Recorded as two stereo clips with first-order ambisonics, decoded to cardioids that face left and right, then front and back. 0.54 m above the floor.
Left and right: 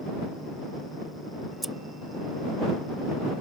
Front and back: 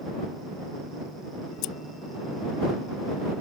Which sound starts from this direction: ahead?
Scissors, at 1.6 s.